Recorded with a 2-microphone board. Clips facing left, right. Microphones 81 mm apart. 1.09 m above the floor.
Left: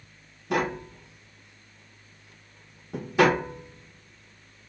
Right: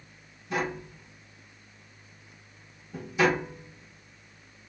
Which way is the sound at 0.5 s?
70° left (ahead or behind).